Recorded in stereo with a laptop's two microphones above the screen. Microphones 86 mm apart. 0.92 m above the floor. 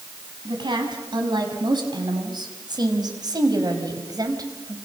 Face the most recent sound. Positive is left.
turn(degrees=-45)  # may be behind; listen again after turning